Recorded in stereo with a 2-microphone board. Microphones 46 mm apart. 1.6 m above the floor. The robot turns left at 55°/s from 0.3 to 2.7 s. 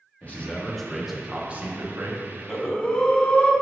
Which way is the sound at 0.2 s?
35° left.